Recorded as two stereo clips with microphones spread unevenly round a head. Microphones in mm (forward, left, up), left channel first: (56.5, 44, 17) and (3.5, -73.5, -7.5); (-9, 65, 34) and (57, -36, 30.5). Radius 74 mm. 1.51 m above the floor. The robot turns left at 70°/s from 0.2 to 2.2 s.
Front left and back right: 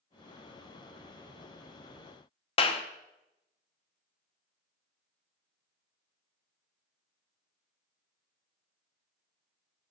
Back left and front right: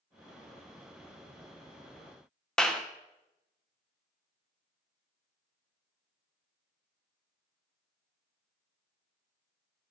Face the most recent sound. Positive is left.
turn(degrees=40)